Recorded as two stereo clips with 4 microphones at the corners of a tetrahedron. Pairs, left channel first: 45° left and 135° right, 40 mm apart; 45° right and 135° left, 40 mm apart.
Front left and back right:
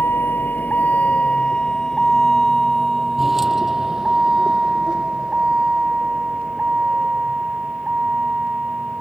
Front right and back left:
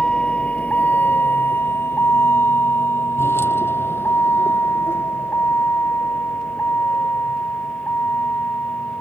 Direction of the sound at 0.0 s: 20° left.